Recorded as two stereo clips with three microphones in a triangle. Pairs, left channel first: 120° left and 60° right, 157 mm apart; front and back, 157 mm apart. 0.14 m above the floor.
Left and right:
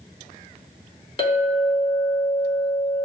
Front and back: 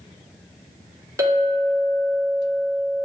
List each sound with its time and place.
1.2 s a clink: 120° left, 0.8 m